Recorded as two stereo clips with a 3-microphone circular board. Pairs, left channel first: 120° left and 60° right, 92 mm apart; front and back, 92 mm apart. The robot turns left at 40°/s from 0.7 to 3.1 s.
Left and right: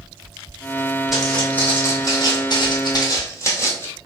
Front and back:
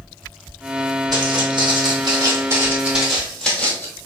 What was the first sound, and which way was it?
Footsteps, 150° right.